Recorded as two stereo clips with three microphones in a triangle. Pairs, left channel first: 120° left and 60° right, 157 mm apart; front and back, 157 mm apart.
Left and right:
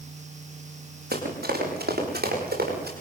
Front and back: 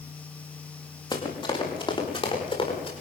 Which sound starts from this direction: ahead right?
Running footsteps, at 1.1 s.